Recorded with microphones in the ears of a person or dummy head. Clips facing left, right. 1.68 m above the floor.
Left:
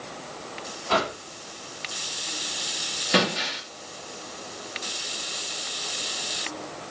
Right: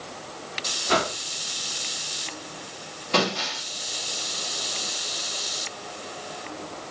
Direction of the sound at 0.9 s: 25° right (ahead or behind).